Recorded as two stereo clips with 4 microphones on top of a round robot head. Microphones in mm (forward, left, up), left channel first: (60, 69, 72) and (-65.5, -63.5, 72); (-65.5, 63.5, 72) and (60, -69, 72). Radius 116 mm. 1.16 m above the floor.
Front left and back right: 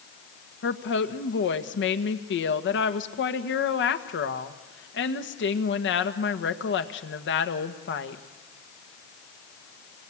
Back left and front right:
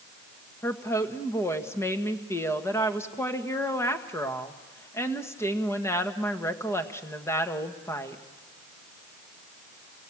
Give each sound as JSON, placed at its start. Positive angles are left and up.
{"t": 0.6, "sound": "a woman speaking", "azimuth_deg": 60, "distance_m": 1.7}